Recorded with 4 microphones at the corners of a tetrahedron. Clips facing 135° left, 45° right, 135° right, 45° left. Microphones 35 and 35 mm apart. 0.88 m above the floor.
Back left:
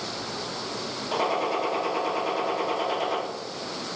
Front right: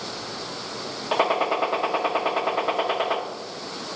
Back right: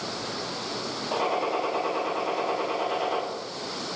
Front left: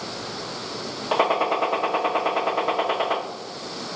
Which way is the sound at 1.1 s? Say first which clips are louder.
Front right 4 dB, front left 6 dB; 10° left.